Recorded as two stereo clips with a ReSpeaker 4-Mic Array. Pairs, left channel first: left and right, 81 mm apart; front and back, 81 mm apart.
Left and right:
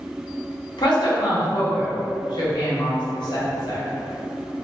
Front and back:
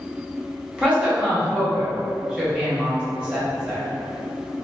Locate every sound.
0.8 s a woman speaking: 100° left, 1.4 m